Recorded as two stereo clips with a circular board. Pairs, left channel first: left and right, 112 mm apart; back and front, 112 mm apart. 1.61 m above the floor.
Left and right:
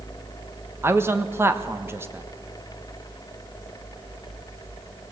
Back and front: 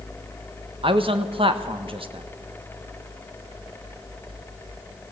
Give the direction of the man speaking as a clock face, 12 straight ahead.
1 o'clock.